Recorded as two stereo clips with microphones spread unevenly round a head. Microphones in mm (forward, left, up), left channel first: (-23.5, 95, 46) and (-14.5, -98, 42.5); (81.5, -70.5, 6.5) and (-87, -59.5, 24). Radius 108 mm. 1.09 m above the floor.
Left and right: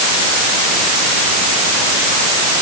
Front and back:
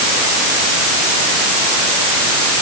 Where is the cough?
No cough in this recording.